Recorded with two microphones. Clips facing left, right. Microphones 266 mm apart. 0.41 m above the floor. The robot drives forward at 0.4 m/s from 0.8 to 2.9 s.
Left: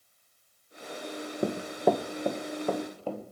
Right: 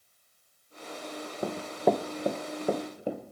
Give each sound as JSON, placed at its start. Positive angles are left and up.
{"t": 1.4, "sound": "running footsteps", "side_deg": 25, "distance_m": 0.8}